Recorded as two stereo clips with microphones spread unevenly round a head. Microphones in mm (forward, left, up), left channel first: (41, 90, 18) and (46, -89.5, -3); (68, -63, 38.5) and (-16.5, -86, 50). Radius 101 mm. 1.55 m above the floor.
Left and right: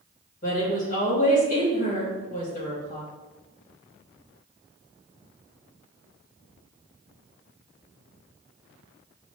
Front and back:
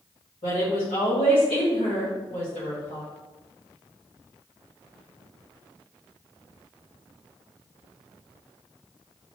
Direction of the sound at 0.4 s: 45° left.